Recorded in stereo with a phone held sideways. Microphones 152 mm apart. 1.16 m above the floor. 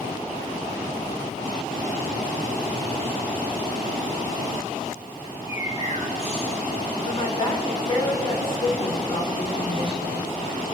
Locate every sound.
5.2 s a bird: 40° left (ahead or behind), 2 m
7.0 s a woman speaking: 35° left (ahead or behind), 4.5 m